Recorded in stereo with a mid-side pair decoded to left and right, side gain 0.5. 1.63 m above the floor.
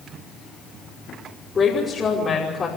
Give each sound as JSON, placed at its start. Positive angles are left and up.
{"t": 1.6, "sound": "a woman speaking", "azimuth_deg": 35, "distance_m": 5.0}